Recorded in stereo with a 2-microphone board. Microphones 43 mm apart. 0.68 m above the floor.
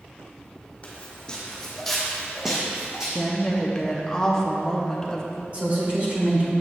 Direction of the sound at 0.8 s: 30° left (ahead or behind).